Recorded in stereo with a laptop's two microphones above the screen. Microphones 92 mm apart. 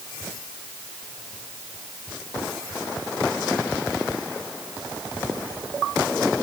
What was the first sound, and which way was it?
Only background noise.